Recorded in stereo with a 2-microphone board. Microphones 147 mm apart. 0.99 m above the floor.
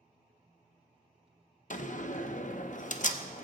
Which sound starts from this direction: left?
A door slam, at 1.7 s.